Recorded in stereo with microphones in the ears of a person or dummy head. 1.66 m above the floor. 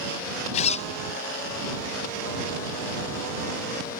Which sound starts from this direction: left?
A zipper, at 0.5 s.